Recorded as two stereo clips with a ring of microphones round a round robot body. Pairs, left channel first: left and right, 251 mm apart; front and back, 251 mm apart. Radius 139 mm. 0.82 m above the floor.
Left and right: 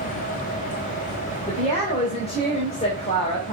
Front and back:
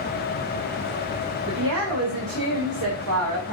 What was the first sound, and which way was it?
A woman speaking, 155° left.